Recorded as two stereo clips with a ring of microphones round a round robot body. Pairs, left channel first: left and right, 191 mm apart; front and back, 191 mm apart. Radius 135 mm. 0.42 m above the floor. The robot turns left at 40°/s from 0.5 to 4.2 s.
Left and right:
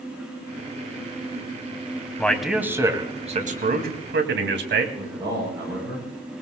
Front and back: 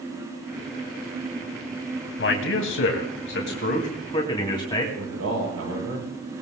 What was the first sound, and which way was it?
A man speaking, 10° left.